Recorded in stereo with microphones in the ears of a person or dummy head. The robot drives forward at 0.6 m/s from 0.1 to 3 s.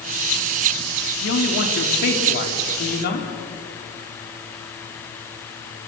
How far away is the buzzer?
I don't hear a buzzer.